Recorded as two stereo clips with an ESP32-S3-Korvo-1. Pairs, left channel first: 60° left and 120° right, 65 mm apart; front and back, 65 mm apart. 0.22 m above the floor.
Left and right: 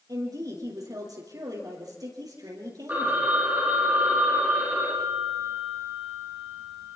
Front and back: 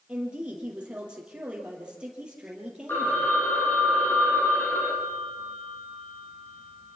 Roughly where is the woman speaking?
Right.